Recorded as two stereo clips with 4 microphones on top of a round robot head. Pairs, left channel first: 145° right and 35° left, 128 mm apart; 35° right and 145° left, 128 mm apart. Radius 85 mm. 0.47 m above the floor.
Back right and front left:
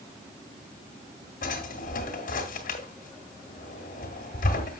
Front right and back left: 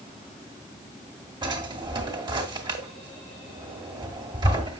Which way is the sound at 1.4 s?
155° right.